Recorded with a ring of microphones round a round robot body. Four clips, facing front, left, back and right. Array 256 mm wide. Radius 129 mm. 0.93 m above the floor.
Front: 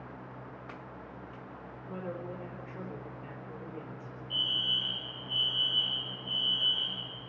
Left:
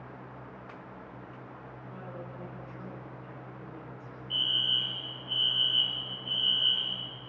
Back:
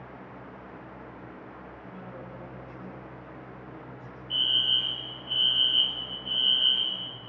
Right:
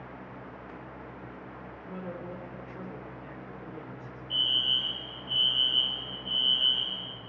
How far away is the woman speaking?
About 4 m.